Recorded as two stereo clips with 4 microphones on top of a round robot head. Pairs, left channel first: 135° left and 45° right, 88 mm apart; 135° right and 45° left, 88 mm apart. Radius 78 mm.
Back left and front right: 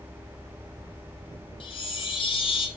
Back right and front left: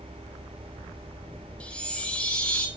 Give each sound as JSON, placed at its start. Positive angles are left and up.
{"t": 1.6, "sound": "a chime", "azimuth_deg": 150, "distance_m": 1.6}